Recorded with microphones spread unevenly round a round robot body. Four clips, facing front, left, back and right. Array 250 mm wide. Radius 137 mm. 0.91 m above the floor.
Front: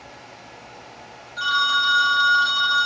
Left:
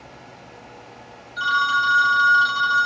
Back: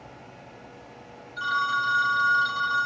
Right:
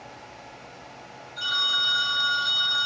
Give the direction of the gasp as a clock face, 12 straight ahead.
I don't hear a gasp.